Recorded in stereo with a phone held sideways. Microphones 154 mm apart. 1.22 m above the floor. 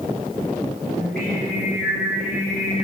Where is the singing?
80° right, 2 m.